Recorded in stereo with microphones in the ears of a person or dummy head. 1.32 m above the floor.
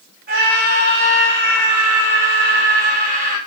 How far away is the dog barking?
I don't hear a dog barking.